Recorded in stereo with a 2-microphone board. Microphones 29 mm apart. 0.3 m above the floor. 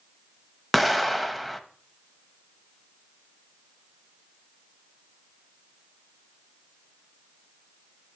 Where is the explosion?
Centre (ahead or behind), 0.9 m.